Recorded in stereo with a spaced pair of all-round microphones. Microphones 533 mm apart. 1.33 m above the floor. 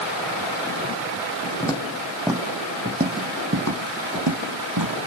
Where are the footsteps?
10° left (ahead or behind), 2.5 m; by 5.0 s 50° right (ahead or behind), 3 m.